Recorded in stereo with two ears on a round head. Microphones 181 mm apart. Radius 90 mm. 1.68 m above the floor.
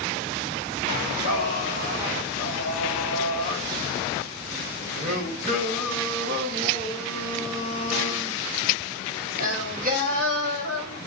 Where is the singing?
45° right (ahead or behind), 7 m.